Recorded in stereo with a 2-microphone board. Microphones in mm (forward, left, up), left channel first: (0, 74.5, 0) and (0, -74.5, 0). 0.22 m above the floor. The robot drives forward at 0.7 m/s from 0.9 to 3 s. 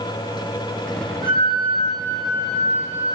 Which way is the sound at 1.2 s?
85° right.